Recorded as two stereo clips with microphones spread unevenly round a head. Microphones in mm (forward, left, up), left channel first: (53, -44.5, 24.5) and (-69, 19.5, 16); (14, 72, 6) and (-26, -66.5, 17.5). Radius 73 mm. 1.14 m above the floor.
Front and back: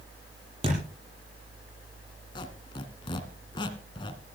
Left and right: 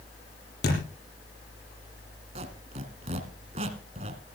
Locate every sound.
0.6 s a thud: 95° left, 7.5 m
2.4 s a squeak: 75° right, 1.6 m